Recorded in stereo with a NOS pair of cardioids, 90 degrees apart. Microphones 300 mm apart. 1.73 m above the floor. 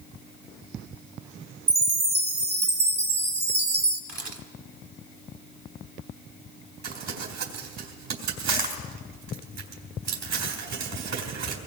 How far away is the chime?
About 2.5 m.